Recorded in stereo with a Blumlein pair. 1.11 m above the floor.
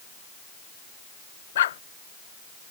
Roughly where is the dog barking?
Ahead left.